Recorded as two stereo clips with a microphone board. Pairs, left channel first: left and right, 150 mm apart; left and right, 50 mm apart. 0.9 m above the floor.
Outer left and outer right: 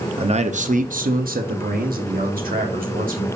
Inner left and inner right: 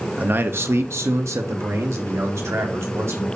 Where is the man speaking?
40° right (ahead or behind), 0.8 m; by 3.3 s 70° right (ahead or behind), 2 m.